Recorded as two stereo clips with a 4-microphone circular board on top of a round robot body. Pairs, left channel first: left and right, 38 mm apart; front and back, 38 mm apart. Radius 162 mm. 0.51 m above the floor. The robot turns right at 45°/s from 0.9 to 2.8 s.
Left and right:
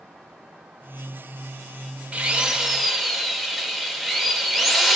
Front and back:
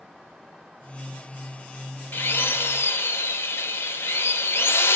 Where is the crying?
No crying in this recording.